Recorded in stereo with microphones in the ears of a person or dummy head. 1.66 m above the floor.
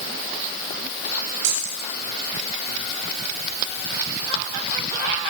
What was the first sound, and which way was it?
Keys jangling, 70° right (ahead or behind).